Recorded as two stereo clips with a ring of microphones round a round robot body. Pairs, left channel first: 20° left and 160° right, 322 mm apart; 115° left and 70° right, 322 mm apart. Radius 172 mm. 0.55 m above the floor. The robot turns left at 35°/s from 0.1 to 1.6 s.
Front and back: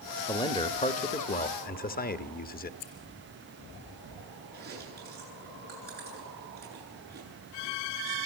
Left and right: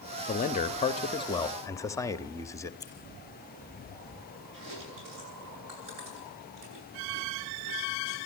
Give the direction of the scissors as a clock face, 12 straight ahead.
11 o'clock.